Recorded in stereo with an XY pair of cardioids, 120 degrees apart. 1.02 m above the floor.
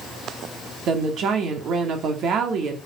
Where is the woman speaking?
60° right, 2.5 m.